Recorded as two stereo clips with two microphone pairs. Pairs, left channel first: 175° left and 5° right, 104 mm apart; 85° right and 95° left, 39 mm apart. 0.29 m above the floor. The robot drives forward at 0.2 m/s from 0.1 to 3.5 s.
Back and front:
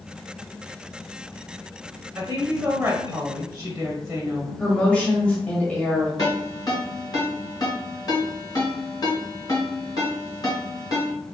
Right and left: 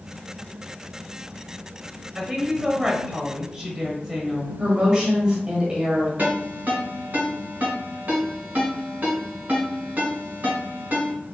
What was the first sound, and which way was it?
A woman speaking, 25° left.